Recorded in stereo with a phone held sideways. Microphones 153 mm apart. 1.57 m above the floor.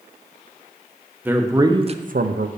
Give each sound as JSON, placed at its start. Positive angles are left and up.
{"t": 1.2, "sound": "a man speaking", "side_deg": -10, "distance_m": 1.2}